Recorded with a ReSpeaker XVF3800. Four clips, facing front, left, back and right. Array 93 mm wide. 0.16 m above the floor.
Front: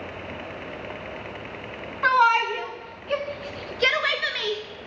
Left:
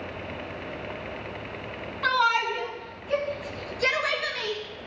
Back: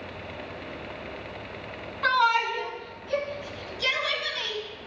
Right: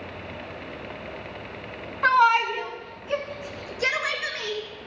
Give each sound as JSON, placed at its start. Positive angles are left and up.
{"t": 2.0, "sound": "a shout", "azimuth_deg": -55, "distance_m": 1.2}